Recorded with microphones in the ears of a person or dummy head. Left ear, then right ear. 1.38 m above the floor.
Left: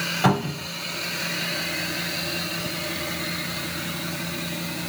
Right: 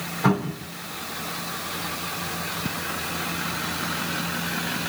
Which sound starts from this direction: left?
A cupboard door, at 0.2 s.